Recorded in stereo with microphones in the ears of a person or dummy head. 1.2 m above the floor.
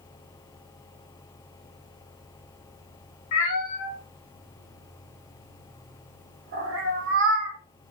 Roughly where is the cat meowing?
Left.